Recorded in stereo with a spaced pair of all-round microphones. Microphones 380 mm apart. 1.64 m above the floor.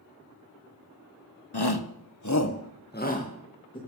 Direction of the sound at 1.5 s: 85° left.